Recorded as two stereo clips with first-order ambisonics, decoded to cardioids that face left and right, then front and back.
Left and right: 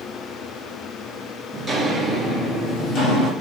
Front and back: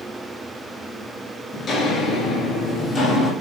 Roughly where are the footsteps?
Ahead.